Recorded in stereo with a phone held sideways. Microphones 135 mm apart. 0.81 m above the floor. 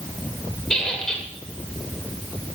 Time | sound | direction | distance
0.7 | a squeak | 5° left (ahead or behind) | 1.2 m